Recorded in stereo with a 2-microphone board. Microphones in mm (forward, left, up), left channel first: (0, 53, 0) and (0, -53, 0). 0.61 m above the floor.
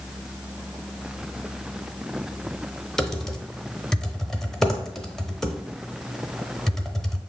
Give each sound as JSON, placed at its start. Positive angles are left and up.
{"t": 3.0, "sound": "typing on a keyboard", "side_deg": 5, "distance_m": 0.6}